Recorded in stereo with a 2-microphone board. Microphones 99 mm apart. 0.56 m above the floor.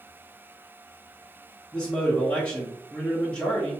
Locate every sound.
1.7 s a man speaking: 15° left (ahead or behind), 0.8 m